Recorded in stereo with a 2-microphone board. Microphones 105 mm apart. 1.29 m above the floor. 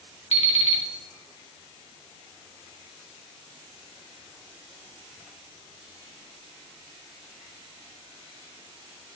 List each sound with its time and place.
0.3 s an alarm clock: 80° left, 1.9 m